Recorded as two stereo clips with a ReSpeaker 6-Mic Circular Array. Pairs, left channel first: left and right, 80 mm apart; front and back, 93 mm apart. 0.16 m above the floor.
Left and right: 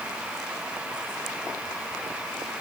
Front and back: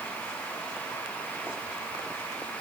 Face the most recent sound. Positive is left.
No sound to turn to.